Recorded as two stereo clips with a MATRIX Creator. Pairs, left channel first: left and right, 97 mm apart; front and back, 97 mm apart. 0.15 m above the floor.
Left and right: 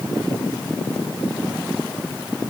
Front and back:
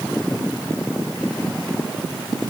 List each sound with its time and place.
Only background noise.